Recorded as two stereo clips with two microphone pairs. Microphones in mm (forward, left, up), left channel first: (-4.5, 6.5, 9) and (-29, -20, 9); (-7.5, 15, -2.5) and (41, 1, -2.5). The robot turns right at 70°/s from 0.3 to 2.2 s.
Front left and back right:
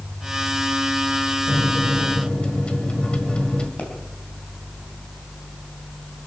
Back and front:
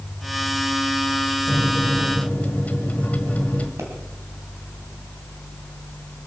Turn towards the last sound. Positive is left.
turn(degrees=-5)